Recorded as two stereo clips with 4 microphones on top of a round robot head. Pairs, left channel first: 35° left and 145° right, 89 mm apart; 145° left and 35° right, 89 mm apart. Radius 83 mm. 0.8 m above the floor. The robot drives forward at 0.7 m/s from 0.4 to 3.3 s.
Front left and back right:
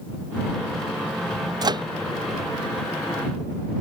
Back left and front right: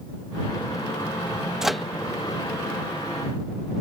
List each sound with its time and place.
1.6 s a microwave: 120° right; by 1.9 s 130° right